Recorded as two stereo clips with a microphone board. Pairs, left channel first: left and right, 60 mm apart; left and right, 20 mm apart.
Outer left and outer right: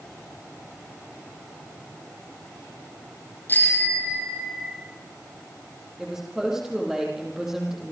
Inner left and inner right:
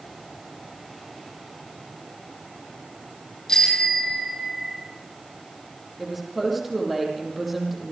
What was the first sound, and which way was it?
A bicycle bell, 35° left (ahead or behind).